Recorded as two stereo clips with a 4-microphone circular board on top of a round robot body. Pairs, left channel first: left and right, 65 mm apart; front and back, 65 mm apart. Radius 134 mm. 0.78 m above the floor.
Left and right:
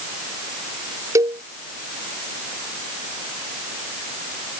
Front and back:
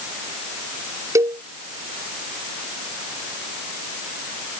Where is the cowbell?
135° right.